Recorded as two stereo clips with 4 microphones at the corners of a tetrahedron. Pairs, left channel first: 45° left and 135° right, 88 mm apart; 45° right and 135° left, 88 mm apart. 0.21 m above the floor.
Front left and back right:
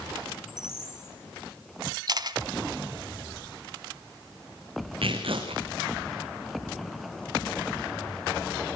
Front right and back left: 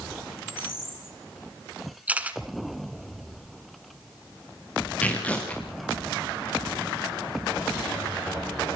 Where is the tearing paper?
120° right, 4 m.